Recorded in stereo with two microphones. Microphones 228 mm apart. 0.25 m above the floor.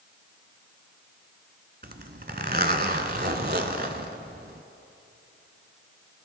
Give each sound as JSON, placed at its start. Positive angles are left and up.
{"t": 1.8, "sound": "a zipper", "side_deg": -45, "distance_m": 0.9}